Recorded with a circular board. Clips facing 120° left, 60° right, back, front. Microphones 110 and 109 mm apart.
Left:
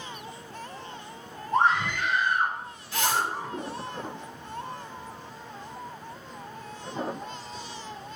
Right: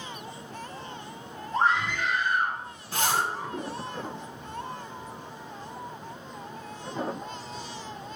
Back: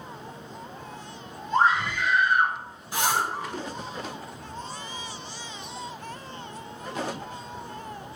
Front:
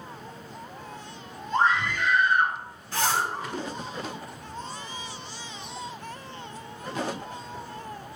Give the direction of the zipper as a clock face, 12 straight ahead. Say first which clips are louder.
Even, even; 4 o'clock.